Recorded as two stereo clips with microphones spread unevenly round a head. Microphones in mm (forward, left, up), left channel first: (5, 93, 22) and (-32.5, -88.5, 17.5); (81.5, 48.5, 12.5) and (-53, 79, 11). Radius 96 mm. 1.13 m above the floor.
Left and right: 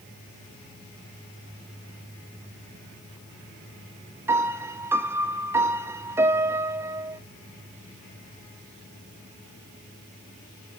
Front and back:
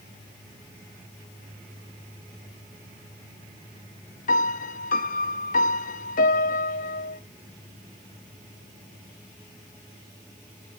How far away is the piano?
About 0.7 m.